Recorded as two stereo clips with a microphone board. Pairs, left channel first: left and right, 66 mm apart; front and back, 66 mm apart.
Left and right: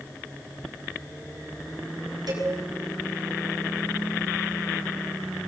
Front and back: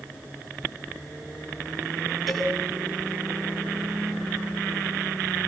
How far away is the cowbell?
About 6.5 m.